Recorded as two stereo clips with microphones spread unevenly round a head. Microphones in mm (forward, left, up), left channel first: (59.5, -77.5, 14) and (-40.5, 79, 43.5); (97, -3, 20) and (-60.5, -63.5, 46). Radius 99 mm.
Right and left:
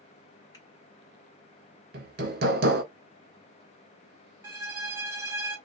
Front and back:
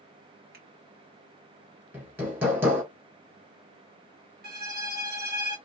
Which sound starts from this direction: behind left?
Hammering, at 1.9 s.